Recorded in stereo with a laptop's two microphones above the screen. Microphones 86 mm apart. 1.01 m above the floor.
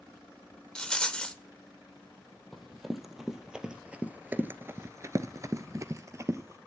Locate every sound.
0.8 s a rattle: 10° left (ahead or behind), 1.0 m
2.5 s running footsteps: centre (ahead or behind), 2.5 m; by 6.6 s 35° right (ahead or behind), 1.8 m